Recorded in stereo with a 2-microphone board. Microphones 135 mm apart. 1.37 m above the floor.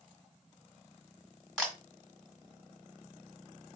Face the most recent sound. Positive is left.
turn(degrees=5)  # may be behind; listen again after turning